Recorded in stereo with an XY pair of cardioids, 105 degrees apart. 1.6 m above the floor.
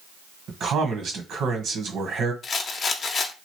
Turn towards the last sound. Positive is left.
turn(degrees=50)